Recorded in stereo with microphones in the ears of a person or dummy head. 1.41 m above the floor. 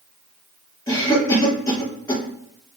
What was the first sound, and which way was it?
A cough, 15° left (ahead or behind).